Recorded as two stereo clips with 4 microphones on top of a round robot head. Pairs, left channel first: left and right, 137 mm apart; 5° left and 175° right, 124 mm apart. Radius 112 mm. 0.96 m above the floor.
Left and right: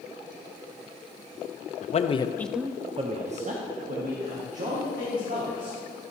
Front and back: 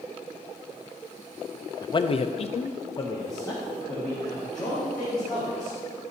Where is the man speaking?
60° left, 0.7 m; by 5.8 s 75° right, 2.5 m.